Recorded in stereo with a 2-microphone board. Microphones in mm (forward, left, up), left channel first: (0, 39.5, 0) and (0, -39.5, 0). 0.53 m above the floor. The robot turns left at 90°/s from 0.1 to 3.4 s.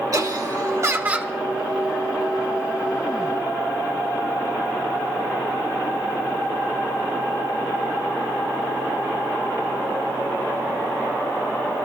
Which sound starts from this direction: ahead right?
Laughter, at 0.1 s.